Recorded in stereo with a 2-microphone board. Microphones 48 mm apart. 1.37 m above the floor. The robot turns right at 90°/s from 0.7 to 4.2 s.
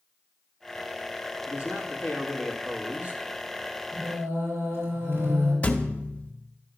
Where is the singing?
85° right, 5 m; by 5.5 s 70° right (ahead or behind), 5 m.